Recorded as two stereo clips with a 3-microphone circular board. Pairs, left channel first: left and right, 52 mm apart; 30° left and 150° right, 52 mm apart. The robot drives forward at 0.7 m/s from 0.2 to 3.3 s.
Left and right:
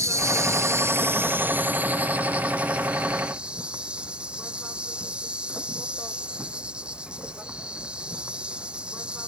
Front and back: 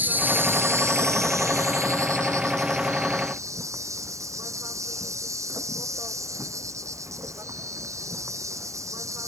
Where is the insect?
100° right; by 9.3 s 160° right.